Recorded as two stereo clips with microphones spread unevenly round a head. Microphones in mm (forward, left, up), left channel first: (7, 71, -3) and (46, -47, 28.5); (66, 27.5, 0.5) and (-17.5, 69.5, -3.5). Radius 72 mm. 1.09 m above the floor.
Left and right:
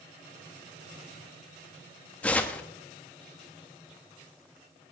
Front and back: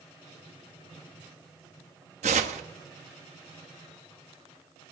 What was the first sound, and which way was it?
Tearing paper, 170° right.